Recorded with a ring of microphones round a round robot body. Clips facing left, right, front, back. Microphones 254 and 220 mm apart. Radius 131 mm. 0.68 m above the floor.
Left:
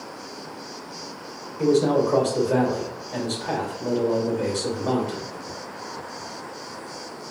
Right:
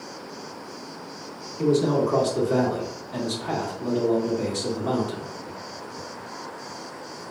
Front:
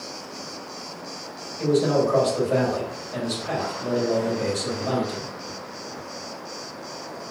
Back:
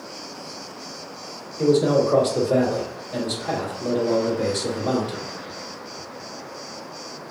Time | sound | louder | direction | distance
1.6 | a man speaking | left 2 dB, back 3 dB | 140° right | 1.9 m